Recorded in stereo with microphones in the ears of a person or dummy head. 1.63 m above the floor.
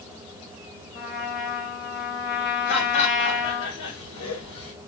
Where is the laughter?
80° left, 2 m.